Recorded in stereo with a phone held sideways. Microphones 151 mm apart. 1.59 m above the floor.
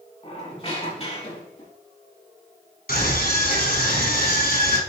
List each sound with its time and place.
0.2 s a squeak: 40° left (ahead or behind), 4 m
2.9 s a scream: 80° left, 3.5 m